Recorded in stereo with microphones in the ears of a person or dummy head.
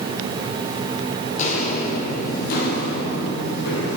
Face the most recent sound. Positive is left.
turn(degrees=60)  # may be behind; listen again after turning